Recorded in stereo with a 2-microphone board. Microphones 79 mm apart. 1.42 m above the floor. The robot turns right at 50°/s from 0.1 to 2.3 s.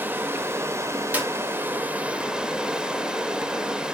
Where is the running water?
130° right, 1.3 m; by 3.9 s 20° right, 1.3 m.